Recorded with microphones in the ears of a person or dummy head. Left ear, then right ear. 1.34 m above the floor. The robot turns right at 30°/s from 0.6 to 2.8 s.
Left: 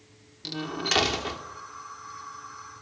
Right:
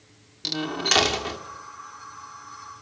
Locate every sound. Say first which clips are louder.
0.4 s a door slam: right 5 dB; 20° right (ahead or behind), 2.5 m; by 1.4 s 5° left (ahead or behind), 2.5 m